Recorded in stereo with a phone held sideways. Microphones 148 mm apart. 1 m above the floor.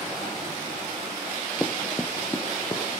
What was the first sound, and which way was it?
Running footsteps, centre (ahead or behind).